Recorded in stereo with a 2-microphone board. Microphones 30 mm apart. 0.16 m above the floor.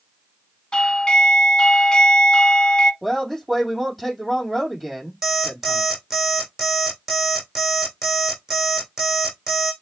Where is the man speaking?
10° right (ahead or behind), 4.5 m.